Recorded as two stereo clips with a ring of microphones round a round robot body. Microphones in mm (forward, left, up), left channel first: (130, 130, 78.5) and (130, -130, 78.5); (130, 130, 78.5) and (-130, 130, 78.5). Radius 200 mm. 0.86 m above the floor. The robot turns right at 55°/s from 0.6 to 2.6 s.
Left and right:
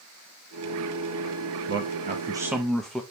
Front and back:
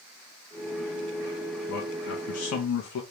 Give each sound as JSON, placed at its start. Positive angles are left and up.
{"t": 1.7, "sound": "a man speaking", "azimuth_deg": -50, "distance_m": 0.6}